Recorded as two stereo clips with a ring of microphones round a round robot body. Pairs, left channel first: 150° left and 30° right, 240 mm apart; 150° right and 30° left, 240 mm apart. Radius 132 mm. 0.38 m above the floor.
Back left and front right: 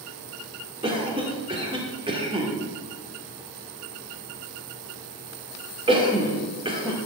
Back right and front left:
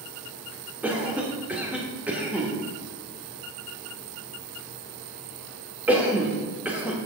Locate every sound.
0.8 s a cough: 45° right, 1.3 m